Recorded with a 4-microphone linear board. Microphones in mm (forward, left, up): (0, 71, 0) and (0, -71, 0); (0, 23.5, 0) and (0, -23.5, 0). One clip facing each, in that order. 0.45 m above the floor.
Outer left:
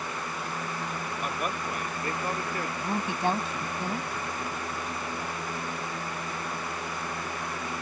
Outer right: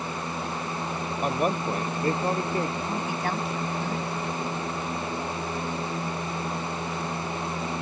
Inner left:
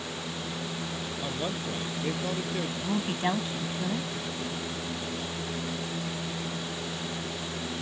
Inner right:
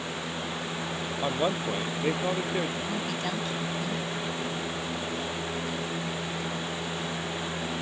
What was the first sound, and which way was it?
A man speaking, 35° right (ahead or behind).